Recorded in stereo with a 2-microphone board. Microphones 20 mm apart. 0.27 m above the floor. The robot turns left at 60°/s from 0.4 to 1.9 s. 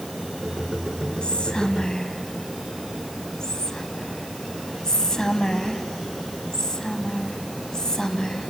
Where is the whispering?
50° left (ahead or behind), 1.6 m; by 8.5 s 30° left (ahead or behind), 1.6 m.